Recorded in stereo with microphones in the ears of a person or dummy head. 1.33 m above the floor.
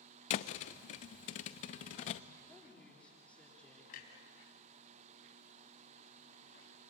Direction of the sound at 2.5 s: 10° left (ahead or behind).